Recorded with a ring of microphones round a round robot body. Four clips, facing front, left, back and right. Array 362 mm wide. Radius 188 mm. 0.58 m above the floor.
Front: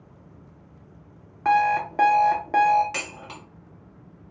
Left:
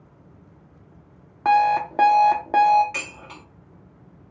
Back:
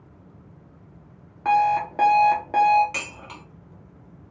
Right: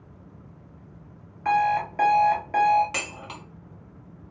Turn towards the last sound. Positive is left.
turn(degrees=-85)